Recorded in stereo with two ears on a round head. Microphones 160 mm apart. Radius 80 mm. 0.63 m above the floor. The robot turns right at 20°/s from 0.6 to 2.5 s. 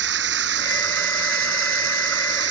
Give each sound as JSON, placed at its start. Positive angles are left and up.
{"t": 0.0, "sound": "running water", "azimuth_deg": -110}